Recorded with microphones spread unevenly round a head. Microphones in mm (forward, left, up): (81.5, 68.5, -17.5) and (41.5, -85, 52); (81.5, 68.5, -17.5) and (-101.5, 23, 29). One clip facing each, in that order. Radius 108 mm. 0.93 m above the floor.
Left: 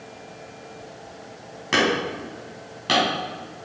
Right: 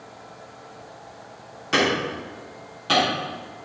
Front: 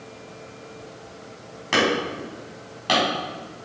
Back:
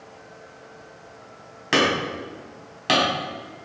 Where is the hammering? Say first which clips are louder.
Even, even; 115° left, 4.5 m.